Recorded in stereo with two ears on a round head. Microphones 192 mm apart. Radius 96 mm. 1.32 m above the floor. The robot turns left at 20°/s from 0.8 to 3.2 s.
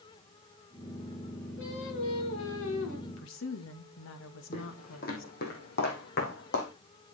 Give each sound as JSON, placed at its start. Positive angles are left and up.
{"t": 1.6, "sound": "singing", "side_deg": 60, "distance_m": 3.0}
{"t": 3.1, "sound": "a woman speaking", "side_deg": 65, "distance_m": 2.0}
{"t": 4.5, "sound": "footsteps", "side_deg": 40, "distance_m": 3.5}